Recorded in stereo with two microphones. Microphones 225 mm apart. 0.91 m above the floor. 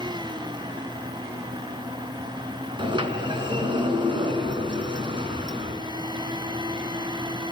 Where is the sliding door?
20° right (ahead or behind), 3 m.